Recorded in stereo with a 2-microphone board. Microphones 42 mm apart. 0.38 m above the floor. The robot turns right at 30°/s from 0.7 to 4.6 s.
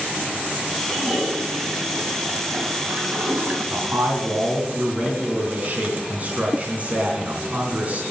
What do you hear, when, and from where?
0.8 s a toilet flushing: 140° right, 3 m; by 3.6 s 60° right, 3 m
3.7 s a man speaking: 60° right (ahead or behind), 3.5 m; by 8.0 s 35° right (ahead or behind), 3.5 m